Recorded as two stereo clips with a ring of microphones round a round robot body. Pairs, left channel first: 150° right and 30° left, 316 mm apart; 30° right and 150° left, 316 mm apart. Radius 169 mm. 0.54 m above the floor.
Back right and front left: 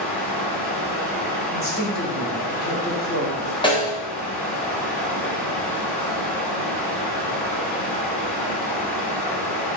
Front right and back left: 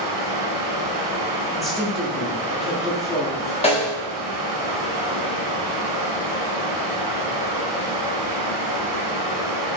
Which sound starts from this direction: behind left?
Running water, at 0.0 s.